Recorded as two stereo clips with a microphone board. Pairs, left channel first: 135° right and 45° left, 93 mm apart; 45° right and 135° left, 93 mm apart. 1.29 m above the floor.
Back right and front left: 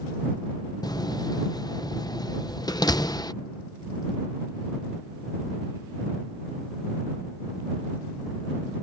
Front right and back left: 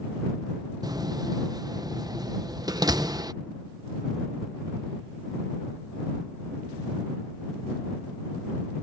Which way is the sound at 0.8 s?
Straight behind.